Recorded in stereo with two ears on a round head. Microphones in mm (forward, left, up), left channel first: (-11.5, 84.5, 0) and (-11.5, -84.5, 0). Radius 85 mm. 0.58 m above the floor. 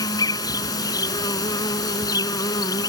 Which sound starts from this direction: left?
An insect, at 0.0 s.